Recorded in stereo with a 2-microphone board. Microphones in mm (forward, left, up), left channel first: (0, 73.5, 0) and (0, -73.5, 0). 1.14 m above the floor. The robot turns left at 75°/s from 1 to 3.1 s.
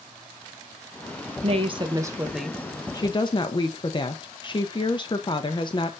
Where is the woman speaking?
105° right, 0.7 m; by 5.9 s 130° left, 0.7 m.